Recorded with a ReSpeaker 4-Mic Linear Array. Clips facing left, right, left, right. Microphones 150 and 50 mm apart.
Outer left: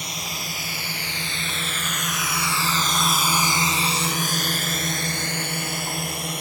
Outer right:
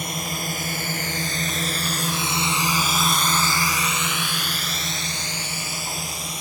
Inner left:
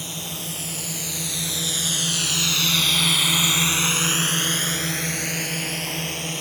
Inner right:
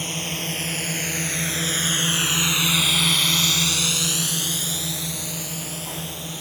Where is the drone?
55° right (ahead or behind); by 6.4 s 65° left (ahead or behind).